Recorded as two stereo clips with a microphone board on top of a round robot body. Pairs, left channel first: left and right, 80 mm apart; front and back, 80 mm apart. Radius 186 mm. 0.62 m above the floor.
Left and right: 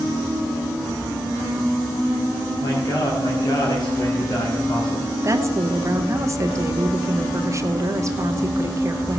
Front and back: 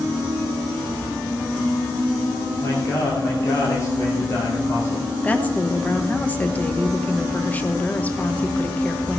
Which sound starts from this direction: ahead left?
A man speaking, at 2.6 s.